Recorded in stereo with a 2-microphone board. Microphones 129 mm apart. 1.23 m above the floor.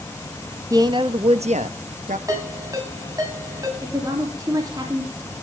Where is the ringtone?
25° right (ahead or behind), 6.5 m.